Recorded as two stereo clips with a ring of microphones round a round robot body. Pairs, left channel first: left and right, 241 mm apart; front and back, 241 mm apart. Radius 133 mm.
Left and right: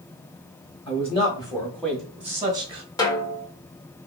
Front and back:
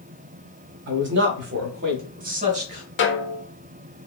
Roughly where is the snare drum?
Ahead.